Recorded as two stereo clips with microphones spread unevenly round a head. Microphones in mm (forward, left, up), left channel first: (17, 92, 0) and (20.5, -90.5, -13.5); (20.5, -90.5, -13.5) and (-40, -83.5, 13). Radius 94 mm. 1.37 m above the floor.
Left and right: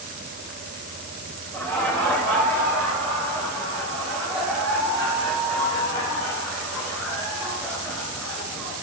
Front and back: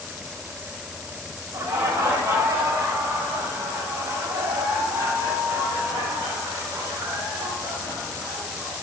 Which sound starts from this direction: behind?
Laughter, at 1.5 s.